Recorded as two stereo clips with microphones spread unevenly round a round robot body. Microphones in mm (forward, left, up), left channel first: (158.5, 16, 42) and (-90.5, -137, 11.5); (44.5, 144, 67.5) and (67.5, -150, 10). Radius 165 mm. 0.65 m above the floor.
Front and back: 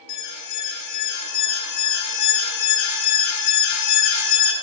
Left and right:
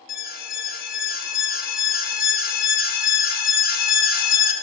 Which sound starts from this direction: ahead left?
An alarm, at 0.1 s.